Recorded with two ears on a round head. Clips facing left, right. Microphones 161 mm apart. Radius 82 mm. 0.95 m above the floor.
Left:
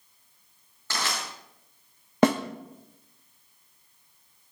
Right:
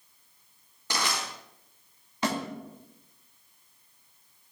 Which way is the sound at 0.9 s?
15° right (ahead or behind).